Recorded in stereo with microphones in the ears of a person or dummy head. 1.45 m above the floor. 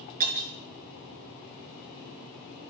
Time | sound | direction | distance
0.2 | breaking glass | 40° right (ahead or behind) | 4.5 m